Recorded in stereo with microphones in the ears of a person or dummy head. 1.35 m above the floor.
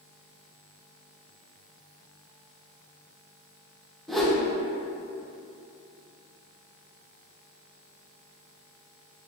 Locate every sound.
4.1 s a whoosh: centre (ahead or behind), 0.6 m